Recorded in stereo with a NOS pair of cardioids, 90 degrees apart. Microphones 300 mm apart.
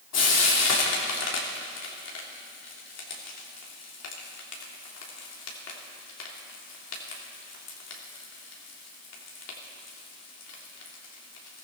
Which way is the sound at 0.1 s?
60° left.